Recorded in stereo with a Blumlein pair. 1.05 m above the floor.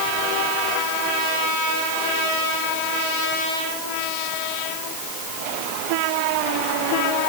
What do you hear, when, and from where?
Only background noise.